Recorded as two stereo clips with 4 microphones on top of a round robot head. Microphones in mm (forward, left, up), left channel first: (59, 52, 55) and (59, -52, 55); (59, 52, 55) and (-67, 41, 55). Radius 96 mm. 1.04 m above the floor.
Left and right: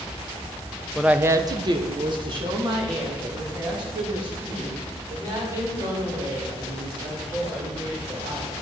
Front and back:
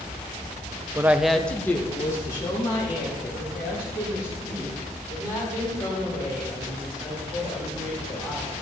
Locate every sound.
0.9 s a woman speaking: 175° right, 0.6 m; by 8.5 s 55° right, 7.5 m